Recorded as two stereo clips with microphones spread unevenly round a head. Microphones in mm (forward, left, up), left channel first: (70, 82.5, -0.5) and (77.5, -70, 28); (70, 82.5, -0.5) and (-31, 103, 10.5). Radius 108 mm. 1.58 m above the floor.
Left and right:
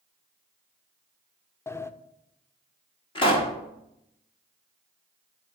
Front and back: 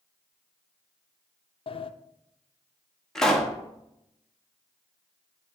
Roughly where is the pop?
Left.